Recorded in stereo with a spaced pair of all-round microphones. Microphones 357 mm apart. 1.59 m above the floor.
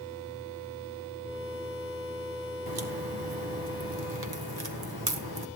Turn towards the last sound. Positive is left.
turn(degrees=-80)